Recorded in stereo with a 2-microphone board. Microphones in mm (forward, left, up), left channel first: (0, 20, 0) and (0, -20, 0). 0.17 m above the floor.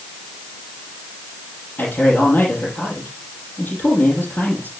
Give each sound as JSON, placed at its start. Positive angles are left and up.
{"t": 1.8, "sound": "a man speaking", "side_deg": 45, "distance_m": 5.5}